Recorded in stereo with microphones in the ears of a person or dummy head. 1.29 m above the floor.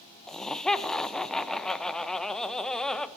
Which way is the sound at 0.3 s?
Centre (ahead or behind).